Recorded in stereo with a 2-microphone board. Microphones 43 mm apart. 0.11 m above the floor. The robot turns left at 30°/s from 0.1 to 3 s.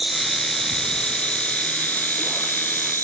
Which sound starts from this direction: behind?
An insect, at 0.0 s.